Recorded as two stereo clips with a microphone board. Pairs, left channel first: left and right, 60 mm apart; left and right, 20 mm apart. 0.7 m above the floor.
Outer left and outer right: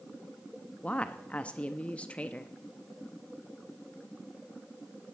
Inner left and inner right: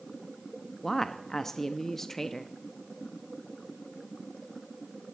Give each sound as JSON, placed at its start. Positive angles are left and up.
{"t": 0.8, "sound": "a woman speaking", "side_deg": 20, "distance_m": 0.8}